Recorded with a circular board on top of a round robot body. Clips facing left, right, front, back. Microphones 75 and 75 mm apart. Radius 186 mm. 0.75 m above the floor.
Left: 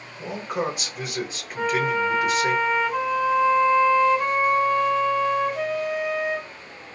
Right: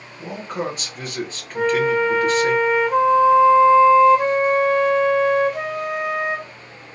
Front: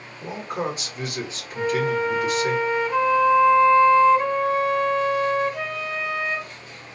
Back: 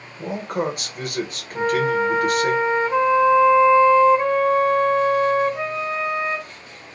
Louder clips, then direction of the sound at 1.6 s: Right 5 dB, back 3 dB; 115° right.